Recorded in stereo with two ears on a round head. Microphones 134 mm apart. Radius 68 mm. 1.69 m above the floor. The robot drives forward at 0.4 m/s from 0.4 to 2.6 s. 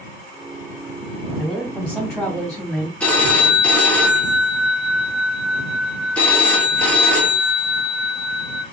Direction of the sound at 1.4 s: Centre (ahead or behind).